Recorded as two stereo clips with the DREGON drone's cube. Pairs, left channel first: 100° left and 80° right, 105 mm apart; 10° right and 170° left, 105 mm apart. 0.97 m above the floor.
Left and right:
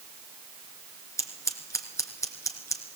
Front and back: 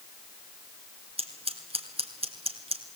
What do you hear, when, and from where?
1.2 s scissors: 160° left, 2.5 m